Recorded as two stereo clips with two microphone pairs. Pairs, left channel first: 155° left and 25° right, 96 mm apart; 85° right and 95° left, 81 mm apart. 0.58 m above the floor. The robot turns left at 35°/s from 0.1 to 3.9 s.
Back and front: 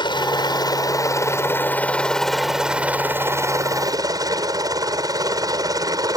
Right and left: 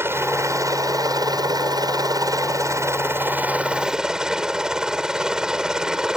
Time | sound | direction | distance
0.0 | a helicopter | 145° left | ?